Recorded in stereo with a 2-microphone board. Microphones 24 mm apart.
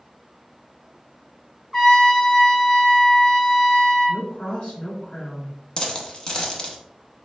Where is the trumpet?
20° left (ahead or behind), 1.3 m.